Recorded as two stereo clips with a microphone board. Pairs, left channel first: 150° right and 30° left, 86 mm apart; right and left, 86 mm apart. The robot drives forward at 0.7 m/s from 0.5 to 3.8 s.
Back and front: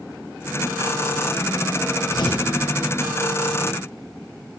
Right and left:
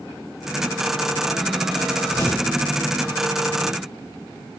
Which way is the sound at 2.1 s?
135° right.